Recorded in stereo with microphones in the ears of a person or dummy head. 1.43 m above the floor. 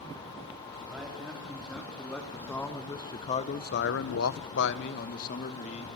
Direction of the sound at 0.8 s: Centre (ahead or behind).